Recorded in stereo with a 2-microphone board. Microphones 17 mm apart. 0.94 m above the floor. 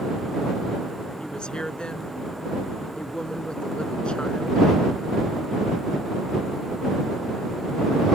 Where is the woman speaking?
60° left (ahead or behind).